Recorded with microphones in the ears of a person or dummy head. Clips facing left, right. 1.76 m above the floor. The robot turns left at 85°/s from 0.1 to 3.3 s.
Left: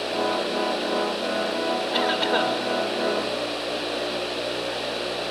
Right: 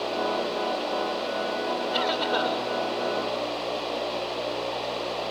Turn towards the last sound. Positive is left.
turn(degrees=65)